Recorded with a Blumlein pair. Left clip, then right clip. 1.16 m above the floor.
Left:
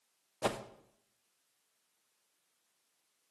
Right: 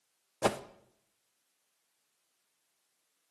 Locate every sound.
0.4 s a whoosh: 15° right, 0.5 m